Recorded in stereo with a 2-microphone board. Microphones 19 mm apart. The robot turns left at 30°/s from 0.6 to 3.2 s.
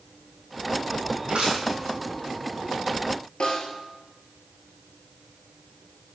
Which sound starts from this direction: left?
A snare drum, at 3.4 s.